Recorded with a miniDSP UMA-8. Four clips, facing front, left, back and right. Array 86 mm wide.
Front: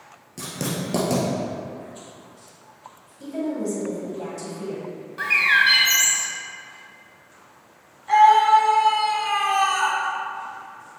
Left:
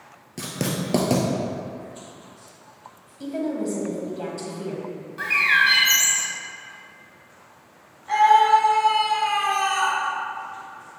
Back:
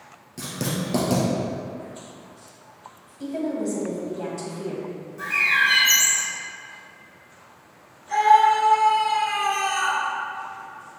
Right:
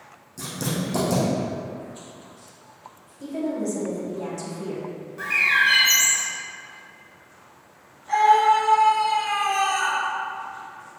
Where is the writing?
85° left, 1.5 m.